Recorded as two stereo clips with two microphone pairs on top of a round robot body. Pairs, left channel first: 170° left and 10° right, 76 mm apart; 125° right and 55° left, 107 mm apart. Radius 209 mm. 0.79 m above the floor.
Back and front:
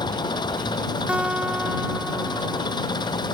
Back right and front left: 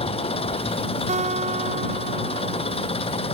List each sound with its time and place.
0.0 s an engine running: 160° right
1.1 s a guitar: 65° left